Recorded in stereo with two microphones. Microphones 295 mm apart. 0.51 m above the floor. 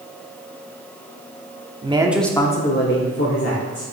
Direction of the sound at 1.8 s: 20° right (ahead or behind).